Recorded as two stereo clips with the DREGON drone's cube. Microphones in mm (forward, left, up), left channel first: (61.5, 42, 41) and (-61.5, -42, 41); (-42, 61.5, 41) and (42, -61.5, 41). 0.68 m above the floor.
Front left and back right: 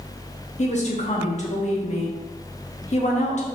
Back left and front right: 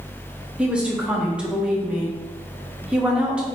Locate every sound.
0.6 s a woman speaking: 25° left, 0.9 m